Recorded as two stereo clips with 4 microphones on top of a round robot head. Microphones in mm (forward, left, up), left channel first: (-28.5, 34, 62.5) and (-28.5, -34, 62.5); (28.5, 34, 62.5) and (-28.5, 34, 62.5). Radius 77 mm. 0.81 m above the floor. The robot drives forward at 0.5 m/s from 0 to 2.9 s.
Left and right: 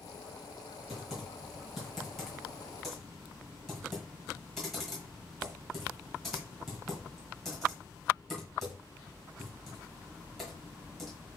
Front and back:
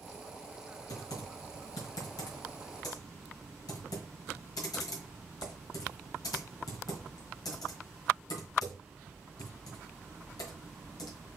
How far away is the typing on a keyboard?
About 3 m.